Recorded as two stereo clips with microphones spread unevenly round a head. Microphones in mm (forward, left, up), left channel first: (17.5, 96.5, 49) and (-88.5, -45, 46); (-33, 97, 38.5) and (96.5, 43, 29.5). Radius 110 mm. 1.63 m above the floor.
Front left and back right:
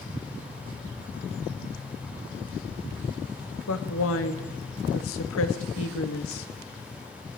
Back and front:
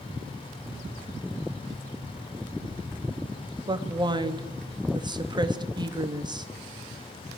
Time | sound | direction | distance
3.7 | a woman speaking | 40° left | 3 m